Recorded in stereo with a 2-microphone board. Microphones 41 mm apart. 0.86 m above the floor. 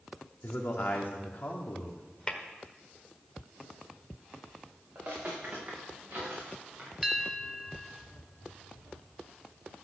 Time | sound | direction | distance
0.4 | a man speaking | 55° left (ahead or behind) | 2.5 m
2.3 | tapping | 25° left (ahead or behind) | 1.4 m
5.0 | footsteps | 50° right (ahead or behind) | 5 m
7.0 | a bell | 10° right (ahead or behind) | 1.1 m